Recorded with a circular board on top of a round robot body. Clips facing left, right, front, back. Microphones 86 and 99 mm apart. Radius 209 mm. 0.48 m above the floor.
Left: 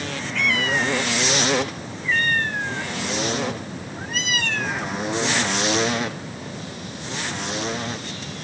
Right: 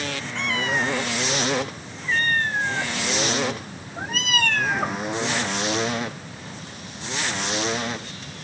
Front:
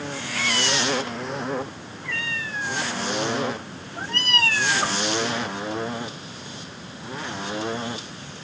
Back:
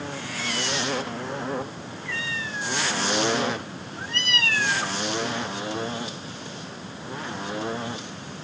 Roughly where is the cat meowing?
Ahead right.